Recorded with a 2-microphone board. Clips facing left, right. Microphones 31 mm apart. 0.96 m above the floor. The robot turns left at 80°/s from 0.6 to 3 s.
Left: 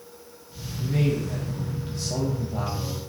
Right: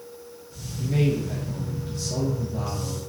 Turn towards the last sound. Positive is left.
turn(degrees=75)